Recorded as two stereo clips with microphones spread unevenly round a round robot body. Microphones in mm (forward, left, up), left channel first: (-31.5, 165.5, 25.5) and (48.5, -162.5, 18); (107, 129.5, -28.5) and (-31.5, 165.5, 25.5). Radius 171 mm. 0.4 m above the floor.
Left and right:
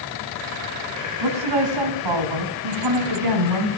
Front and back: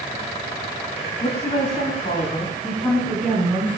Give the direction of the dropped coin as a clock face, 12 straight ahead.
I don't hear a dropped coin.